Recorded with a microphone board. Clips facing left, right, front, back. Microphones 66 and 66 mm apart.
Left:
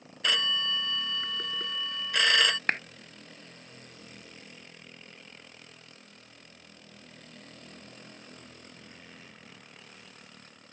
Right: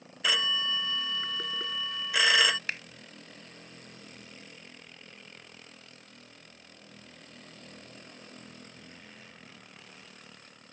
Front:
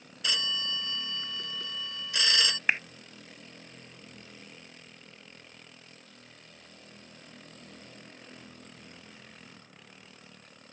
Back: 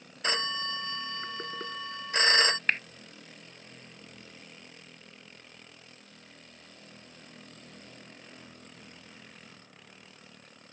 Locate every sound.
0.2 s a phone ringing: 170° right
2.7 s a clap: 75° left